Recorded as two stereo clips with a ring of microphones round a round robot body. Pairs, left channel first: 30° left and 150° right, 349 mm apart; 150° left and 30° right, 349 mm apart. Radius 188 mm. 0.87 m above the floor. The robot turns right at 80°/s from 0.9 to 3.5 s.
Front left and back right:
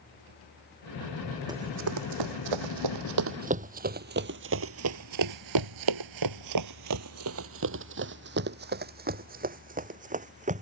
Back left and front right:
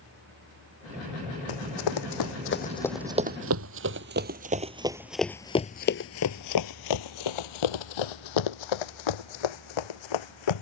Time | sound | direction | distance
1.5 | running footsteps | 130° left | ?